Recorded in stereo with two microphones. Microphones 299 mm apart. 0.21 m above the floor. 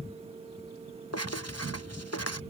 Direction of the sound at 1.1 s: 50° left (ahead or behind).